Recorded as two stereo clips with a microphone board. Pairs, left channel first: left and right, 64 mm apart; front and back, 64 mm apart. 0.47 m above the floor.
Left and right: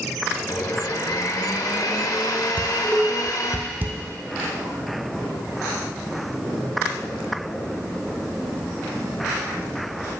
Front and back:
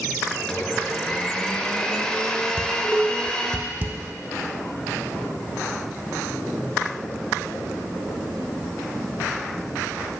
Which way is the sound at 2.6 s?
135° right.